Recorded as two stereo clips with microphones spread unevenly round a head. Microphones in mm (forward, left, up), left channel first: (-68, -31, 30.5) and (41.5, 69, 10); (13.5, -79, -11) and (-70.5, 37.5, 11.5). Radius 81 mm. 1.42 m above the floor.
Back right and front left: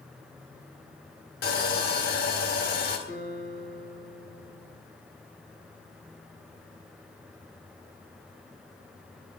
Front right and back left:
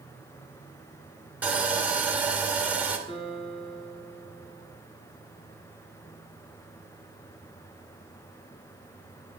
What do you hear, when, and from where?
1.4 s sawing: 155° right, 1.9 m
3.1 s a guitar: 105° right, 2.5 m